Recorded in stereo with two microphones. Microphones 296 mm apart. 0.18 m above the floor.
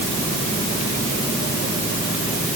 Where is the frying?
I don't hear frying.